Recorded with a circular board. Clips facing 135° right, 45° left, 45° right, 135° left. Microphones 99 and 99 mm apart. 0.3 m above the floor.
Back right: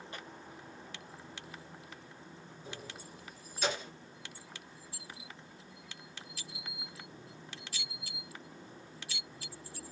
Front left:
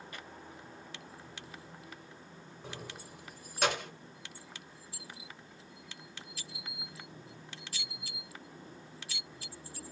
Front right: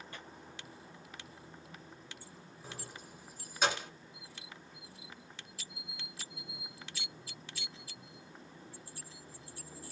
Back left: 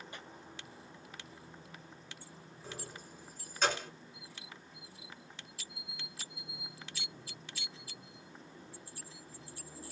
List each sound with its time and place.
0.1 s tearing paper: 170° right, 1.8 m
2.6 s keys jangling: 35° left, 1.8 m